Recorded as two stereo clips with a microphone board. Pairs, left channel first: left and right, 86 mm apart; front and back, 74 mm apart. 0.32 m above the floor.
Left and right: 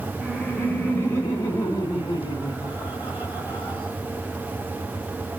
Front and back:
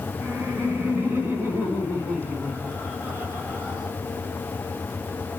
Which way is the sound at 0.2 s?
175° left.